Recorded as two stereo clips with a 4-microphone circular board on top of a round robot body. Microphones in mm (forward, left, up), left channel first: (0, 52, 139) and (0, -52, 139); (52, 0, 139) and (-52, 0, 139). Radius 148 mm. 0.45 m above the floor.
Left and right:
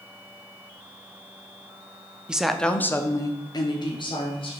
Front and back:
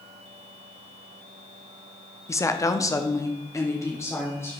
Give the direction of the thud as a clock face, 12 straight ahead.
I don't hear a thud.